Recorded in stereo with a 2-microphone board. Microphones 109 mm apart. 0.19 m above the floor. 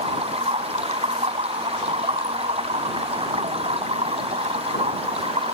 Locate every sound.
0.0 s running water: 65° right (ahead or behind)